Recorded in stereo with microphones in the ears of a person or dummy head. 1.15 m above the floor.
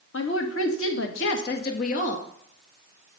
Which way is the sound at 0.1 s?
70° left (ahead or behind).